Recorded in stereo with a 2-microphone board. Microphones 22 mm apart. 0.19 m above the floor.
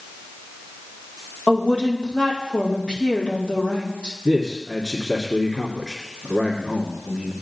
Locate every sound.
1.5 s a woman speaking: 65° left (ahead or behind), 5.5 m
4.2 s a man speaking: 25° left (ahead or behind), 2.5 m